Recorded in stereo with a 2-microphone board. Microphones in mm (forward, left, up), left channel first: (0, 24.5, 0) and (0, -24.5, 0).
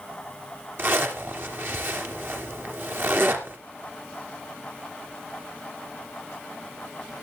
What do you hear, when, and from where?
0.8 s a zipper: 50° right (ahead or behind), 3 m